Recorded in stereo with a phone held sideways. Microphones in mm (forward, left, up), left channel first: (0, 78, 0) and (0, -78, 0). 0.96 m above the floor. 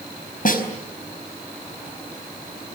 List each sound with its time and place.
0.5 s a snare drum: 60° left (ahead or behind), 4.5 m